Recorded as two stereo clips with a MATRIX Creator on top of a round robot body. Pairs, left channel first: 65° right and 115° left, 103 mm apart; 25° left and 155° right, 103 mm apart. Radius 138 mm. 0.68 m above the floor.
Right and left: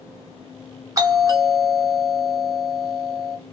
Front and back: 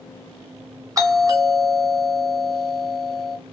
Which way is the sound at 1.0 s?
160° left.